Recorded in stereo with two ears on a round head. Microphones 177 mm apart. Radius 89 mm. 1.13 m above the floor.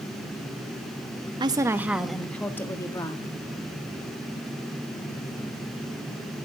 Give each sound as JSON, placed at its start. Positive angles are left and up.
{"t": 1.4, "sound": "a woman speaking", "side_deg": -25, "distance_m": 1.0}